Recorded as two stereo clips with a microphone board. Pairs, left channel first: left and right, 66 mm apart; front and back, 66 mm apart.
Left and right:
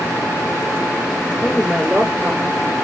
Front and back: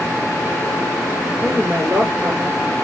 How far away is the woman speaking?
About 1.5 m.